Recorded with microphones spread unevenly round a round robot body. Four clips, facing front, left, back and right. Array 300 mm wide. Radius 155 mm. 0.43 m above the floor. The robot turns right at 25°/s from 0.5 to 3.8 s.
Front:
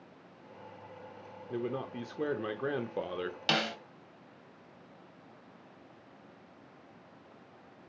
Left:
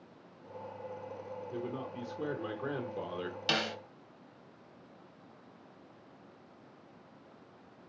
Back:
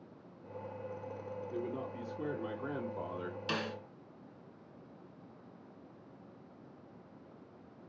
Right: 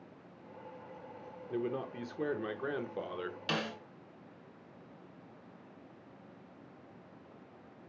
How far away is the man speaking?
About 1.1 m.